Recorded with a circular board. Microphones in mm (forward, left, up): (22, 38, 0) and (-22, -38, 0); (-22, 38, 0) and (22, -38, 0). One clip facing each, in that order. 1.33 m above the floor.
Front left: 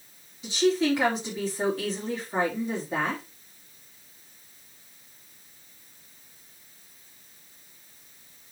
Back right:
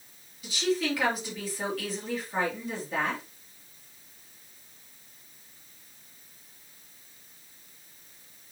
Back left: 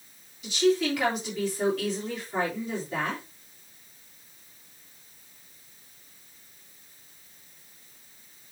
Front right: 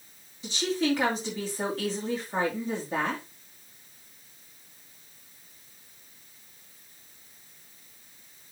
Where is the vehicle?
No vehicle in this recording.